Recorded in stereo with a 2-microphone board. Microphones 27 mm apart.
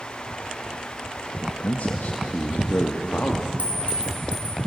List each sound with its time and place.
1.4 s a man speaking: 70° left (ahead or behind), 1.3 m; by 3.5 s 80° left, 2.5 m
3.6 s a clink: 70° right (ahead or behind), 3.5 m